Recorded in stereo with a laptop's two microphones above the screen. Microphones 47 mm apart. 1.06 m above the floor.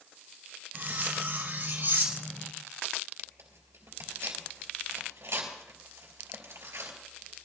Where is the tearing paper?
75° right (ahead or behind), 3.5 m.